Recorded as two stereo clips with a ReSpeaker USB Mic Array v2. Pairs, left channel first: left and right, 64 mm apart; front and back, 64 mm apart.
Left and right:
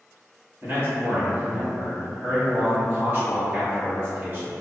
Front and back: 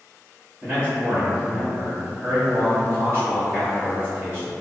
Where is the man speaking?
135° right, 1.7 m.